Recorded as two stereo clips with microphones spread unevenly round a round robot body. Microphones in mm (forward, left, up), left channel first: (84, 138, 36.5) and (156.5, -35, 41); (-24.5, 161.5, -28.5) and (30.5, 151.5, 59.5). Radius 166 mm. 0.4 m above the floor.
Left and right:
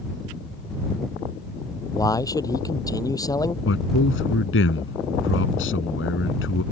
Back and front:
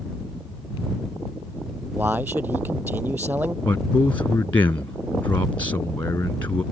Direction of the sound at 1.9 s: 40° left.